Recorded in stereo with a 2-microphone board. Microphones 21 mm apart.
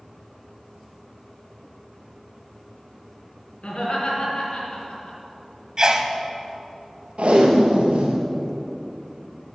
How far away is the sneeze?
About 1.1 m.